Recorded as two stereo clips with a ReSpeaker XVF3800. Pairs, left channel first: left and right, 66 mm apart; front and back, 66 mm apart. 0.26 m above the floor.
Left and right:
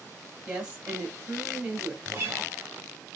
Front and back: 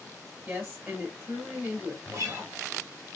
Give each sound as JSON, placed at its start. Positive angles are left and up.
{"t": 0.5, "sound": "a woman speaking", "azimuth_deg": -145, "distance_m": 1.5}
{"t": 2.1, "sound": "a guitar", "azimuth_deg": -150, "distance_m": 1.4}